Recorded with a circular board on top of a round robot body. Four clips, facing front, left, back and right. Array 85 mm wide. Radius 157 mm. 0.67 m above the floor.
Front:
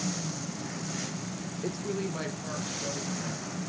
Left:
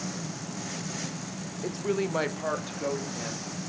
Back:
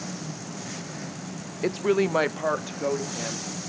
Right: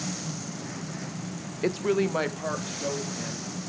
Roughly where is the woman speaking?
Behind right.